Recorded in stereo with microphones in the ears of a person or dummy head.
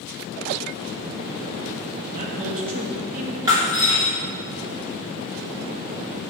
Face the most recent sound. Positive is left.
turn(degrees=-15)  # may be behind; listen again after turning